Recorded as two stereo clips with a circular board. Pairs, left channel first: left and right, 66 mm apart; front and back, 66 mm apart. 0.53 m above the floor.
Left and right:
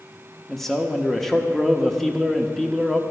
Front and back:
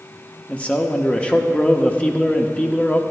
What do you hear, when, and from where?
0.5 s a man speaking: 20° left, 0.6 m